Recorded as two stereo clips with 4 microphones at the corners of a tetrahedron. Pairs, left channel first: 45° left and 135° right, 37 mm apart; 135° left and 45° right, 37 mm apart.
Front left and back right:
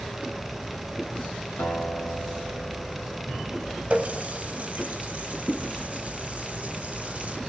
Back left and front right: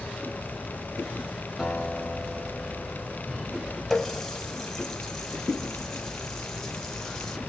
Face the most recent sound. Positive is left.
turn(degrees=-150)